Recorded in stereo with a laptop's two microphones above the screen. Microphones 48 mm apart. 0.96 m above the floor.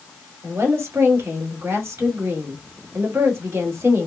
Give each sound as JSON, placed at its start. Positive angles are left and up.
{"t": 0.4, "sound": "a woman speaking", "side_deg": -60, "distance_m": 1.6}